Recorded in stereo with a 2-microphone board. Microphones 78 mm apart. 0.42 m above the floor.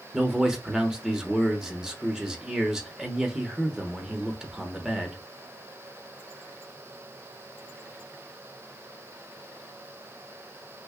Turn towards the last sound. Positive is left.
turn(degrees=-10)  # may be behind; listen again after turning